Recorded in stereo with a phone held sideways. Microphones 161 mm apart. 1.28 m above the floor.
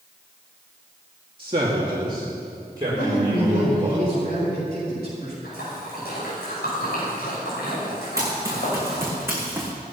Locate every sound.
1.4 s a man speaking: 35° right (ahead or behind), 2.5 m; by 4.0 s 25° right (ahead or behind), 5.5 m
3.0 s a man speaking: 80° left, 8 m
5.4 s a splash: 90° left, 7 m
8.2 s running footsteps: 20° right (ahead or behind), 5.5 m; by 9.7 s 15° right (ahead or behind), 5 m